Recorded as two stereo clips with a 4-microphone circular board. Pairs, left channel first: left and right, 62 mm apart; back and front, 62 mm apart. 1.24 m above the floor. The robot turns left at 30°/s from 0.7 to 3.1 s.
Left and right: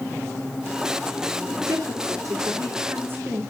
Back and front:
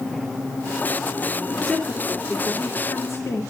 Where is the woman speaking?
95° right, 3.5 m; by 3.4 s 145° right, 3.5 m.